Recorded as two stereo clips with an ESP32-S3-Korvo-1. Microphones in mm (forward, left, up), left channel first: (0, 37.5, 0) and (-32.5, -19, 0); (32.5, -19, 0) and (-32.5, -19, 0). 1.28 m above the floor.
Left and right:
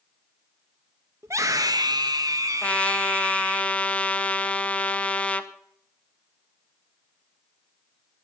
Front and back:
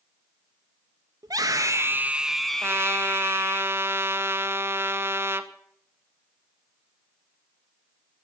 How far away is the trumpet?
About 0.9 m.